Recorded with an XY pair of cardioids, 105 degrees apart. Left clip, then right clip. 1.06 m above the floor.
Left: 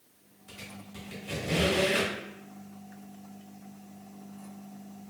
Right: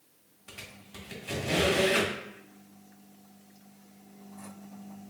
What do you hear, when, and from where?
0.5 s a squeak: 55° right, 1.7 m